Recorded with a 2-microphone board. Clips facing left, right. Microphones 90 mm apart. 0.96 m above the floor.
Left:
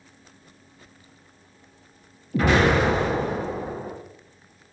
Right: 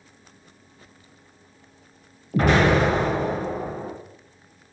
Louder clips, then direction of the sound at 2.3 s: Right 1 dB; 45° right (ahead or behind).